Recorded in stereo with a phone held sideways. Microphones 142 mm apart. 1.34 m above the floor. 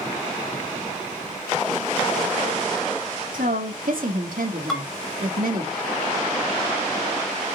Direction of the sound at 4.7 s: 5° left (ahead or behind).